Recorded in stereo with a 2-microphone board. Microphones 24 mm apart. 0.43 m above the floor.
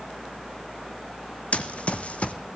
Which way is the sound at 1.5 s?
60° left (ahead or behind).